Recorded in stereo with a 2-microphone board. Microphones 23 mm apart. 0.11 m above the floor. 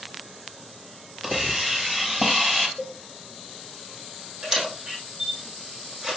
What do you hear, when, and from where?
1.2 s a hiss: 5° left (ahead or behind), 2 m
2.8 s a cowbell: 25° left (ahead or behind), 3 m
4.4 s a camera shutter: 25° right (ahead or behind), 3.5 m